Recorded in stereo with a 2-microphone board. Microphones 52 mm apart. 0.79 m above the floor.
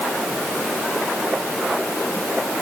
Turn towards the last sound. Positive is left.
No sound to turn to.